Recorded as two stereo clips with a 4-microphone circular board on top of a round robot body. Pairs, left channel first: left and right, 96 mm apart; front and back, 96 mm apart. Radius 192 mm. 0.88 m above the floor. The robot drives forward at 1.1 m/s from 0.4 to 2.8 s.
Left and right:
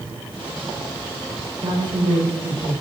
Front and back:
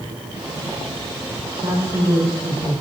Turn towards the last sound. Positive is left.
turn(degrees=-135)